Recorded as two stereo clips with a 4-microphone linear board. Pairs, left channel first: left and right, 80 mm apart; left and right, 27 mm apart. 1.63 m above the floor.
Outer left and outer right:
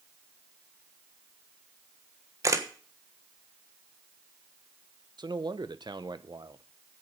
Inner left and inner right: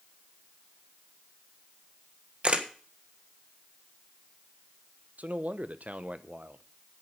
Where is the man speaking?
65° right (ahead or behind), 0.9 m.